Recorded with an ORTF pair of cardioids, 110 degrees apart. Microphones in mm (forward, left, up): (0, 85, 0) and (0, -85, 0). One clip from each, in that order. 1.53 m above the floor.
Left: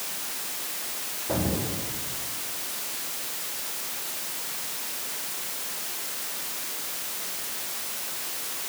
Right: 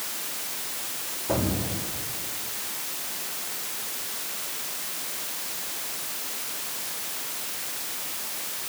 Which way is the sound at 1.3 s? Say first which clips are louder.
Right 1 dB; 15° right.